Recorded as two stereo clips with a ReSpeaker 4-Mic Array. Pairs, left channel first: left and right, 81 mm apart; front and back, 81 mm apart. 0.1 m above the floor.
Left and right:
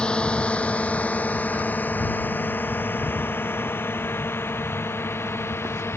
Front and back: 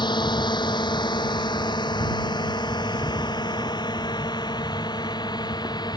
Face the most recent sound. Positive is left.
turn(degrees=30)